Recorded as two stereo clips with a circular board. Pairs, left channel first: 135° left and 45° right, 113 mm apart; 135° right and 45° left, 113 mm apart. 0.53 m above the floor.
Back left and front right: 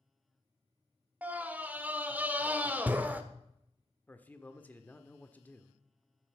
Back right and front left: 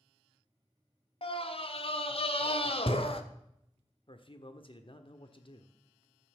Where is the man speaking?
155° right, 1.1 m.